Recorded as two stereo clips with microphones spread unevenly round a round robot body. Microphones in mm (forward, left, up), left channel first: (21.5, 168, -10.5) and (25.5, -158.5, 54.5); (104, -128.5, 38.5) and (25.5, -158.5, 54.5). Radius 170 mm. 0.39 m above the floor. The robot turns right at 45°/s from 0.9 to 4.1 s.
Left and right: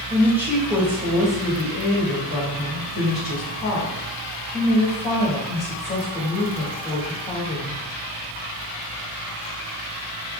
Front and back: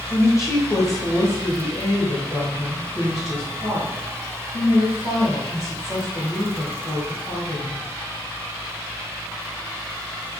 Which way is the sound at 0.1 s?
5° left.